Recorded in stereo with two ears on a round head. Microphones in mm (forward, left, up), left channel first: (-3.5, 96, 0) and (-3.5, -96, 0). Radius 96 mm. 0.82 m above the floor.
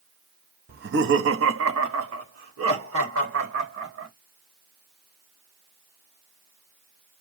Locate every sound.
0.7 s laughter: 40° right (ahead or behind), 0.8 m; by 4.1 s 65° right (ahead or behind), 4 m